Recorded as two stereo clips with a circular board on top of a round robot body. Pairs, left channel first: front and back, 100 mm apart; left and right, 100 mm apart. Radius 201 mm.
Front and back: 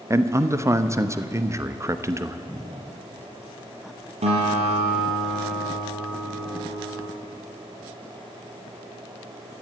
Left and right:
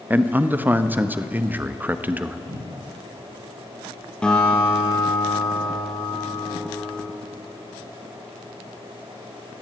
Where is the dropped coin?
I don't hear a dropped coin.